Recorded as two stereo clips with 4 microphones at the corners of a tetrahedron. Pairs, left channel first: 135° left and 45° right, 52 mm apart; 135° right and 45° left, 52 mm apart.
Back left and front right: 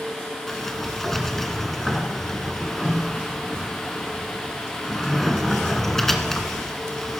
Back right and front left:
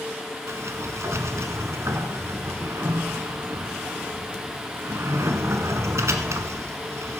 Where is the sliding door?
50° left, 1.0 m.